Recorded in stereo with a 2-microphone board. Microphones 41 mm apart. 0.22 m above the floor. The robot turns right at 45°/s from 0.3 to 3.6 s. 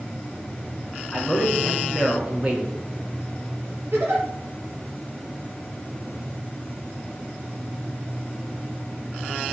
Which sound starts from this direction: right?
A giggle, at 3.9 s.